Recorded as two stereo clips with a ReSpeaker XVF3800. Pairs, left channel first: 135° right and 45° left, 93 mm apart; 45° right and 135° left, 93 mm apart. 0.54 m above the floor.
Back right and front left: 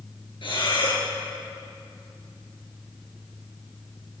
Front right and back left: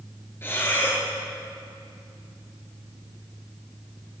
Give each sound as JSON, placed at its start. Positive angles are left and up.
{"t": 0.4, "sound": "breathing", "azimuth_deg": -110, "distance_m": 3.5}